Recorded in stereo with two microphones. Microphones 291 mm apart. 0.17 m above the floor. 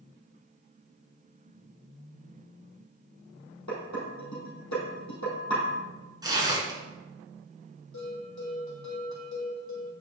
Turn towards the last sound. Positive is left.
turn(degrees=80)